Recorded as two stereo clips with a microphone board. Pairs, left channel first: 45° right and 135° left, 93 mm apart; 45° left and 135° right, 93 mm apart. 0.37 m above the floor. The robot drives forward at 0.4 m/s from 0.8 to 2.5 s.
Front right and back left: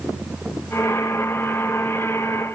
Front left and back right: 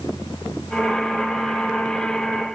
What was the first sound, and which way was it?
Only background noise.